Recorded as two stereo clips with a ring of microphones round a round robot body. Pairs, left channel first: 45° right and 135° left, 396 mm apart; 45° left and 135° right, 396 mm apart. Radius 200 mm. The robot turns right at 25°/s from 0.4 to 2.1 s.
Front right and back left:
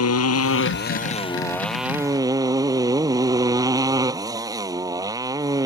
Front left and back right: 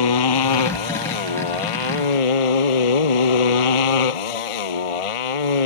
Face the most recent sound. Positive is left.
turn(degrees=55)